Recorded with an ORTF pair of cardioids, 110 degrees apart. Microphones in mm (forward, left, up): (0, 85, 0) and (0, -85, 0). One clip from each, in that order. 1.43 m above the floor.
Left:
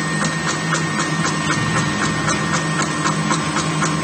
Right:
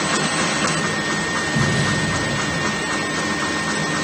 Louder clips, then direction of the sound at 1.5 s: Even; 55° right.